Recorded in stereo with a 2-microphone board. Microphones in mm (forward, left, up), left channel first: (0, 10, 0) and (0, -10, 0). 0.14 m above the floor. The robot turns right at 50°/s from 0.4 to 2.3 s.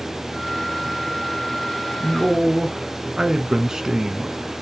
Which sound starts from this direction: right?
A man speaking, at 2.0 s.